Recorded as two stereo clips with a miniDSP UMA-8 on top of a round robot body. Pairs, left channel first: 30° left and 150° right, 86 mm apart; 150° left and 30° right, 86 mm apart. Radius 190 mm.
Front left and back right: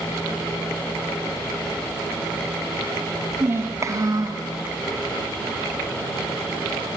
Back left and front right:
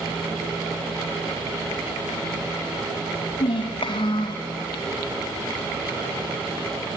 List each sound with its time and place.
3.4 s a child speaking: 145° left, 1.5 m; by 4.5 s 170° left, 1.3 m